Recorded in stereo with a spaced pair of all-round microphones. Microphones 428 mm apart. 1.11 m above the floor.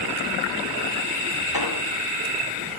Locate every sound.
1.5 s an explosion: 55° left (ahead or behind), 0.9 m